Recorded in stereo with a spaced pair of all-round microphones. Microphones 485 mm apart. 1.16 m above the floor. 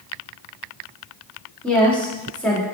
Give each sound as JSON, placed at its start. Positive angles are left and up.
{"t": 1.6, "sound": "a woman speaking", "side_deg": 0, "distance_m": 2.0}